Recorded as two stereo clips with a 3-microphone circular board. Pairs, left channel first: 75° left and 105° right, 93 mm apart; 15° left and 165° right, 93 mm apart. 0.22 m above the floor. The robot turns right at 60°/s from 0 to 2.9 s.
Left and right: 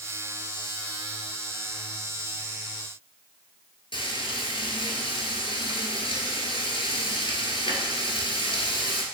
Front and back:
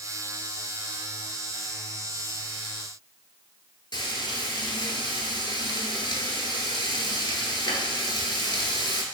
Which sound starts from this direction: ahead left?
Frying, at 3.9 s.